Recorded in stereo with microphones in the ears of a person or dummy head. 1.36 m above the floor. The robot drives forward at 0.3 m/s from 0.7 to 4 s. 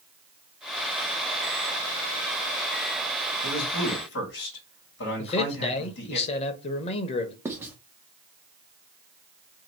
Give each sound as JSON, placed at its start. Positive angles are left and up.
{"t": 3.4, "sound": "a man speaking", "side_deg": 60, "distance_m": 2.0}
{"t": 5.2, "sound": "a man speaking", "side_deg": 40, "distance_m": 0.7}
{"t": 7.5, "sound": "writing", "side_deg": -15, "distance_m": 0.7}